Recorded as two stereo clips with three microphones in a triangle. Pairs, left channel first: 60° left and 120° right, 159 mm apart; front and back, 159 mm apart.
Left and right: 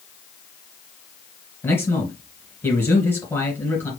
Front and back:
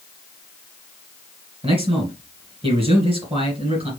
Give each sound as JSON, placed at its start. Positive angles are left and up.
{"t": 1.6, "sound": "a man speaking", "azimuth_deg": 135, "distance_m": 2.5}